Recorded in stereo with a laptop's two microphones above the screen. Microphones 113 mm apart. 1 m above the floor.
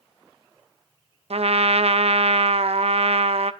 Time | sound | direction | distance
1.3 | a trumpet | 70° right (ahead or behind) | 0.6 m